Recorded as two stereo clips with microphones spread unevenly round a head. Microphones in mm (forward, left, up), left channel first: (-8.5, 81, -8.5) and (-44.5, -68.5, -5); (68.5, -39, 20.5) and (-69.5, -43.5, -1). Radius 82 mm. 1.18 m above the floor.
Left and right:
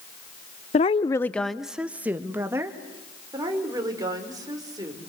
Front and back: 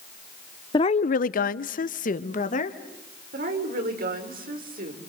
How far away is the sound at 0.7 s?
About 0.5 m.